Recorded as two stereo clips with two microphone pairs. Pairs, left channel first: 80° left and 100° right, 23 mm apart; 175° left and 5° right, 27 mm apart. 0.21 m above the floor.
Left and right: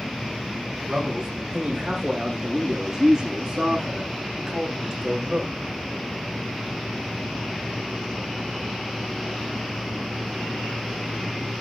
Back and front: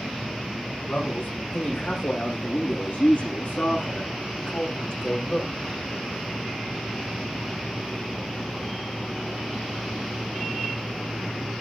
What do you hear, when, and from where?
0.9 s a man speaking: 170° right, 9.5 m; by 5.5 s 155° right, 9.5 m